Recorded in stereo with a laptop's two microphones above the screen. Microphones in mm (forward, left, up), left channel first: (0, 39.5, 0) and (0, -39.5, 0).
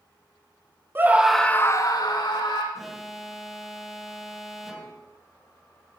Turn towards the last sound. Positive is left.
turn(degrees=-5)  # may be behind; listen again after turning